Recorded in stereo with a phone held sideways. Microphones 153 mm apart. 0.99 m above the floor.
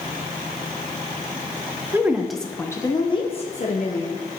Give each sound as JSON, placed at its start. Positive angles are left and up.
{"t": 1.9, "sound": "a woman speaking", "side_deg": -15, "distance_m": 0.8}